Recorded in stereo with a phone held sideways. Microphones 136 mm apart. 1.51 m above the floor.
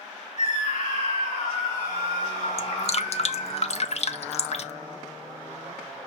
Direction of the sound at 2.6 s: 50° left (ahead or behind).